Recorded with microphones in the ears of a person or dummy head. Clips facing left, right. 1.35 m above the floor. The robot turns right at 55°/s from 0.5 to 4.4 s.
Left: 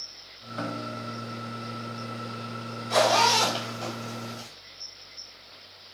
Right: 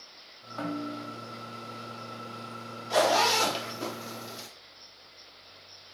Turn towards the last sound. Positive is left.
turn(degrees=-60)  # may be behind; listen again after turning